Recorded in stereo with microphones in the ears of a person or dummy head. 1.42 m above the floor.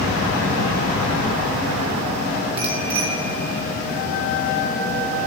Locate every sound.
2.6 s a bicycle bell: 30° right (ahead or behind), 7.5 m; by 5.3 s 25° right (ahead or behind), 5 m